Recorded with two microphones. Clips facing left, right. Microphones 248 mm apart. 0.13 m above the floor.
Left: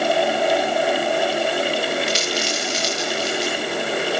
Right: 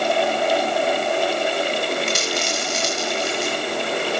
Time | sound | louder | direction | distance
2.1 | a dropped coin | left 1 dB | 55° right (ahead or behind) | 7.5 m